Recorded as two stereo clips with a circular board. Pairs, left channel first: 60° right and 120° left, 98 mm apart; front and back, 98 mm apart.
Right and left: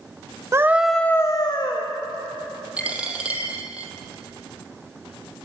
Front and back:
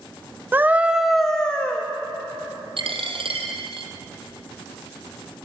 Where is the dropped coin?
165° right, 2.5 m.